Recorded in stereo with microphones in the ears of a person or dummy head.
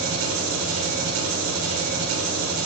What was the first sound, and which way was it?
An engine running, 75° right (ahead or behind).